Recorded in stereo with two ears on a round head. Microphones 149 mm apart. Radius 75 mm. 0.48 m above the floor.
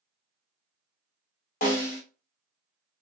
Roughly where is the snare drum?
Left.